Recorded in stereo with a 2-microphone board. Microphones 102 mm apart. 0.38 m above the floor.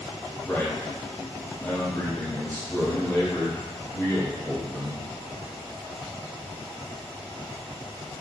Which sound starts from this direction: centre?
A man speaking, at 0.5 s.